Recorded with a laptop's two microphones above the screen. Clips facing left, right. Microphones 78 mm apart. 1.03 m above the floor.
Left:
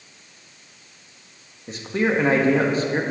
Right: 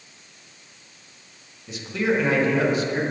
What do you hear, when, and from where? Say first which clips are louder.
1.7 s a man speaking: left 2 dB; 35° left (ahead or behind), 0.8 m